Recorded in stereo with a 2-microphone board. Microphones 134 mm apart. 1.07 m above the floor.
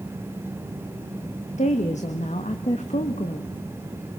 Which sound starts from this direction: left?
A woman speaking, at 1.6 s.